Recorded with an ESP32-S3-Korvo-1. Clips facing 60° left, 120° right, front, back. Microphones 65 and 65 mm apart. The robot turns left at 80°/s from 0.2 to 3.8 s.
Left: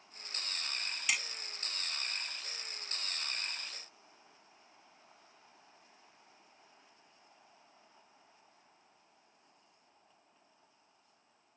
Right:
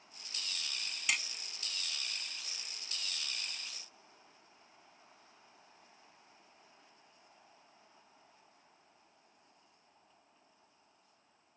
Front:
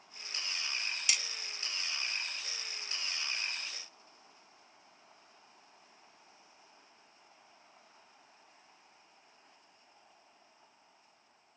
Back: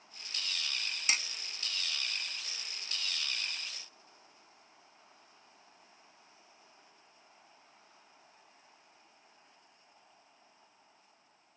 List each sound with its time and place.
1.1 s hammering: 150° left; by 1.2 s 135° left